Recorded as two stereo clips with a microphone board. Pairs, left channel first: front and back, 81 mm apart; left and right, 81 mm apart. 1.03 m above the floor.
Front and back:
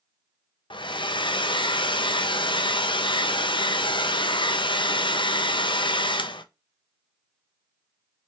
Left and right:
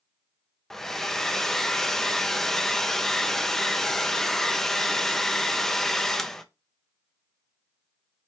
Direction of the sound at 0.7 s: 5° left.